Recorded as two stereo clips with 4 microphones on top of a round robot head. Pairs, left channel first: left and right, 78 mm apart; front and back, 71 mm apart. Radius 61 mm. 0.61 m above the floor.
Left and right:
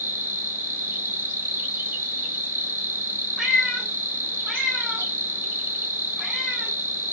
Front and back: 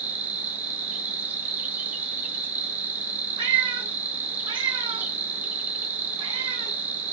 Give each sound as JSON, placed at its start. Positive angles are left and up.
{"t": 0.0, "sound": "an insect", "azimuth_deg": -135, "distance_m": 1.3}
{"t": 3.4, "sound": "a cat meowing", "azimuth_deg": 180, "distance_m": 3.0}